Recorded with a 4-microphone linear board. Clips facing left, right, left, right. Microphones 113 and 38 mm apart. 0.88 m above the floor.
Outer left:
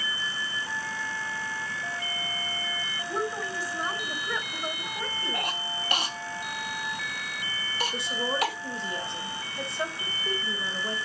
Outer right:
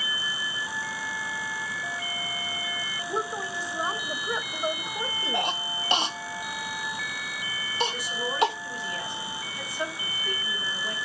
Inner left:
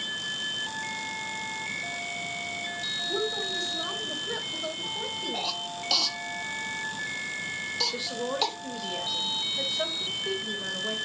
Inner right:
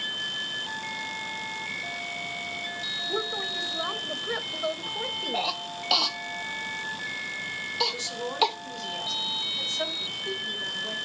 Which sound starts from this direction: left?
A woman speaking, at 7.9 s.